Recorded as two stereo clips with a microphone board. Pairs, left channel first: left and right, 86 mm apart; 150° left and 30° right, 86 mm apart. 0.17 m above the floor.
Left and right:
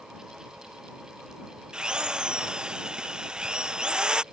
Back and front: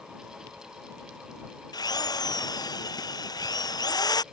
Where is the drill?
170° right.